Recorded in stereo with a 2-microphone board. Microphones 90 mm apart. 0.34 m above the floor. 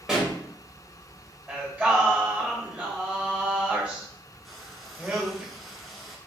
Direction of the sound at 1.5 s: 20° right (ahead or behind).